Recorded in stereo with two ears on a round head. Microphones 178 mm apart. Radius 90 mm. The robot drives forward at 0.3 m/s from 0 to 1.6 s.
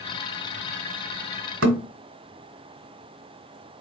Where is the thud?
70° right (ahead or behind), 1.5 m.